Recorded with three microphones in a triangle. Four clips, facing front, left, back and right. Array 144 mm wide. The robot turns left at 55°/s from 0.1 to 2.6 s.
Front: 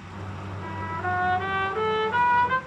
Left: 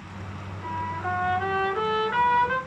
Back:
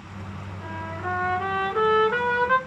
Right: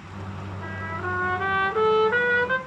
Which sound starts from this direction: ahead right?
A trumpet, at 0.6 s.